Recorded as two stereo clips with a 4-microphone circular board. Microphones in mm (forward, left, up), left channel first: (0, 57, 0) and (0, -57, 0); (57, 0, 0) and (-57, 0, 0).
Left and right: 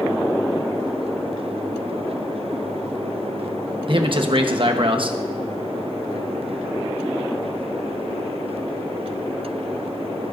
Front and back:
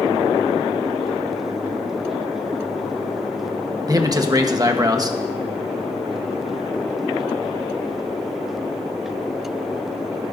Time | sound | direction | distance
3.9 | a man speaking | 125° right | 1.2 m